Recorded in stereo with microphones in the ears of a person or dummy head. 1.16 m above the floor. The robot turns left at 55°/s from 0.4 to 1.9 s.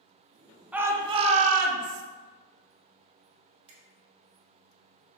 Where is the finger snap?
30° right (ahead or behind), 1.3 m.